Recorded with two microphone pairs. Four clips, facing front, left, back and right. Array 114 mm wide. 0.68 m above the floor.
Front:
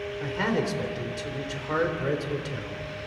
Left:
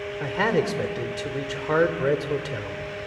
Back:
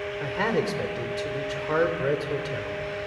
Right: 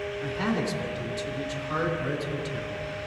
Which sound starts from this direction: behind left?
A man speaking, at 0.2 s.